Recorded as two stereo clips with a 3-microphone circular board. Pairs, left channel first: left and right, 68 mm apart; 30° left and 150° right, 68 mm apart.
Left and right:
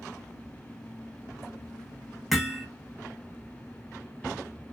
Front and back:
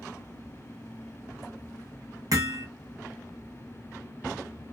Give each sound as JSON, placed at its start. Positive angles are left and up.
{"t": 2.3, "sound": "hammering", "azimuth_deg": -175, "distance_m": 0.9}